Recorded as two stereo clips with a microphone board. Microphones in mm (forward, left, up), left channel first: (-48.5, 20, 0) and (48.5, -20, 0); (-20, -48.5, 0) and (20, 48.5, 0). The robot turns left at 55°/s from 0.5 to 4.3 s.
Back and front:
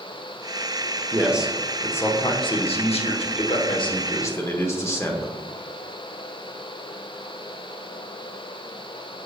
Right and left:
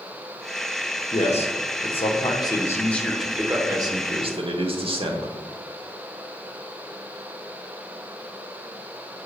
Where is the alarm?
I don't hear an alarm.